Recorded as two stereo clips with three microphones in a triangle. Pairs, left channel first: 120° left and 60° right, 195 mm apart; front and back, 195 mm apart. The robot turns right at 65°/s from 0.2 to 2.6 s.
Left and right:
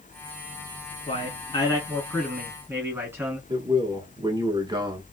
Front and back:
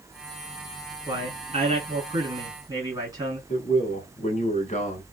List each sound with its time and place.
1.1 s a man speaking: 130° left, 1.8 m; by 3.4 s 130° right, 1.8 m
3.5 s a man speaking: 10° right, 1.3 m